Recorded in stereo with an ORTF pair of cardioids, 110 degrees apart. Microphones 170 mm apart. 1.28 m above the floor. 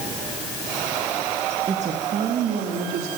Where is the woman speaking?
40° right, 2.5 m; by 3.1 s 75° right, 3.5 m.